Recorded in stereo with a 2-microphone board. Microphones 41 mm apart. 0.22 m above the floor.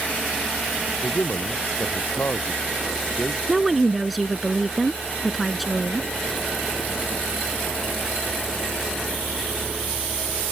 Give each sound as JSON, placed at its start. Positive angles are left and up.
{"t": 1.0, "sound": "a man speaking", "side_deg": 55}
{"t": 3.5, "sound": "a woman speaking", "side_deg": 0}